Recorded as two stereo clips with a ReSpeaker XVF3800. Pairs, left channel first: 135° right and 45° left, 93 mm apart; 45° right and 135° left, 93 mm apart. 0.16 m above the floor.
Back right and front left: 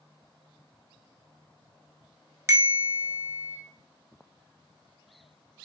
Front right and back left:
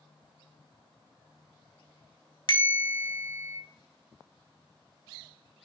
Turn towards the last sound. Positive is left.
turn(degrees=-10)